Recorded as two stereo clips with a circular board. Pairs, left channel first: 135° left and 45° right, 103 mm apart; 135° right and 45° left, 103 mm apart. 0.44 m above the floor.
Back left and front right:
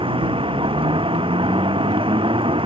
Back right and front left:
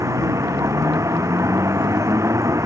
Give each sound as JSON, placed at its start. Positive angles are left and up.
{"t": 0.0, "sound": "a vehicle", "azimuth_deg": -15}